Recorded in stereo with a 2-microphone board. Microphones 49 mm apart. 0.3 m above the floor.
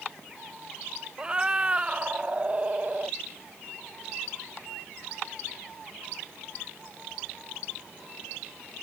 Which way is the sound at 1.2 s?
20° right (ahead or behind).